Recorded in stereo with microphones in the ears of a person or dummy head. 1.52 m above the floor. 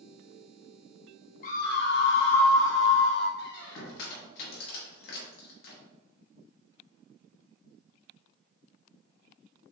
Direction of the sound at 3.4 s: 55° left (ahead or behind).